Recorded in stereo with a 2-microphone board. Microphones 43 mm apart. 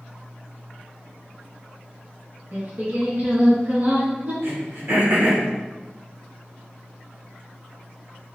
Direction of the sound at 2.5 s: 45° right (ahead or behind).